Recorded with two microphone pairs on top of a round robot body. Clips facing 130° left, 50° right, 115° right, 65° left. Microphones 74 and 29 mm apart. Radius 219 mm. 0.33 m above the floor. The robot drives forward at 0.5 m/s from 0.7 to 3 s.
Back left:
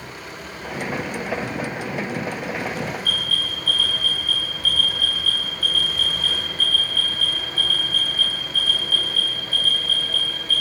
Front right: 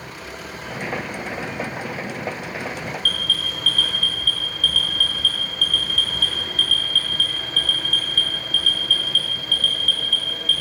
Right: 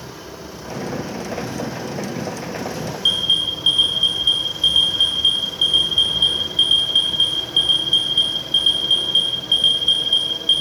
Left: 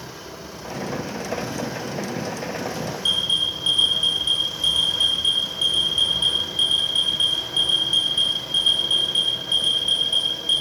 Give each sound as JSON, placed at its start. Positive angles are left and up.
{"t": 3.0, "sound": "an alarm", "azimuth_deg": -55, "distance_m": 7.0}